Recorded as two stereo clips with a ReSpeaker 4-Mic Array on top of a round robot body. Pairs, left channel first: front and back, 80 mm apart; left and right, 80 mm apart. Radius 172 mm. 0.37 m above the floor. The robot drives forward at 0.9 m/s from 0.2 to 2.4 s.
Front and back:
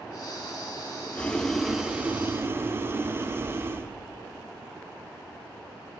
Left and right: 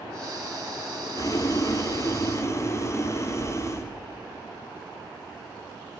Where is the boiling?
65° left, 1.5 m; by 3.9 s 130° left, 1.6 m.